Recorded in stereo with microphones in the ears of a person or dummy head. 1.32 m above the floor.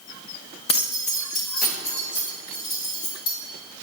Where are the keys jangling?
30° left (ahead or behind), 0.8 m; by 3.4 s 65° left (ahead or behind), 2.5 m.